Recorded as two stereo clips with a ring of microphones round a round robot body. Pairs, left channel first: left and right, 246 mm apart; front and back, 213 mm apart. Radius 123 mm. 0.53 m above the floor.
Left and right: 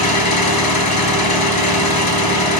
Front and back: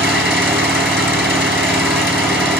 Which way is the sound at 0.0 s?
90° left.